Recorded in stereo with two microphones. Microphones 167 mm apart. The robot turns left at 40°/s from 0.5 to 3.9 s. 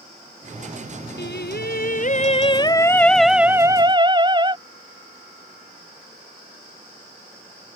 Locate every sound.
1.2 s singing: 80° left; by 4.6 s 25° right